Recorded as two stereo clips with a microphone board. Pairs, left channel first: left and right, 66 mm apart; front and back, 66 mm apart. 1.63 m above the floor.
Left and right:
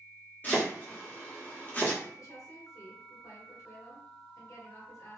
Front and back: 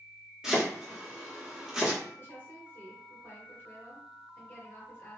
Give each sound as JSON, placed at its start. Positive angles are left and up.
{"t": 0.4, "sound": "chopping", "azimuth_deg": 110, "distance_m": 1.3}
{"t": 2.2, "sound": "a woman speaking", "azimuth_deg": 55, "distance_m": 1.5}